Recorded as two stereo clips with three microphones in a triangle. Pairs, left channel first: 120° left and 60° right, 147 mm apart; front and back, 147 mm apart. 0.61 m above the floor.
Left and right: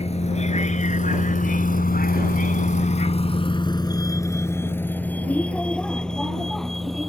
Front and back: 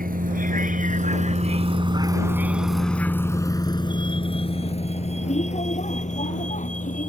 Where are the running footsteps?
No running footsteps in this recording.